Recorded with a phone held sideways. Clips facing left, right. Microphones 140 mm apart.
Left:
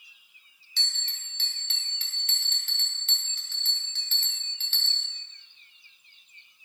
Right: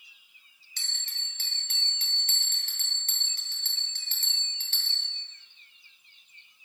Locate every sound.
0.8 s a bell: 40° right (ahead or behind), 1.7 m